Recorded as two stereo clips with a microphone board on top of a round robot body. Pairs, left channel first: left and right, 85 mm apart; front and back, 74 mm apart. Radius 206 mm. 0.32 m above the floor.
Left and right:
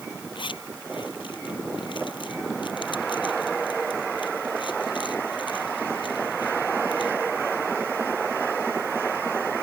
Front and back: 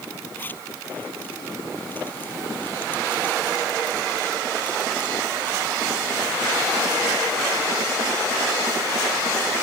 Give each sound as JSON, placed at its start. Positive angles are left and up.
{"t": 0.3, "sound": "a zipper", "azimuth_deg": 65}